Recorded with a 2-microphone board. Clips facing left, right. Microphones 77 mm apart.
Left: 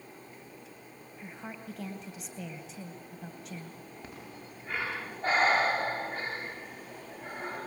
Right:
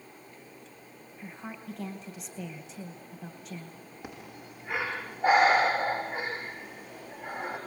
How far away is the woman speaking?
About 2.5 m.